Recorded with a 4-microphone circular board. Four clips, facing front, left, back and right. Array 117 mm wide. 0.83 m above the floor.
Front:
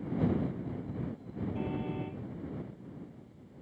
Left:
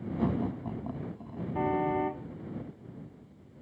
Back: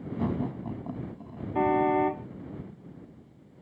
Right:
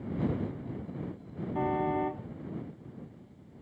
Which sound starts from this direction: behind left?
Laughter, at 0.2 s.